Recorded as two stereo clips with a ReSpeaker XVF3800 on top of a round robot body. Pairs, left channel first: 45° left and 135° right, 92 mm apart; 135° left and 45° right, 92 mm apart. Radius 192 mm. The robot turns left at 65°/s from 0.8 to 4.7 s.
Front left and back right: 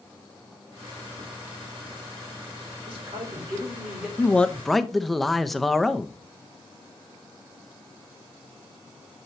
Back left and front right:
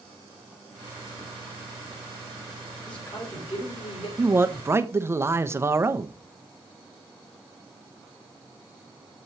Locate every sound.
2.9 s a man speaking: 145° right, 3.5 m; by 4.1 s 135° left, 3.5 m
4.2 s a man speaking: 10° right, 0.9 m; by 6.1 s 45° right, 0.9 m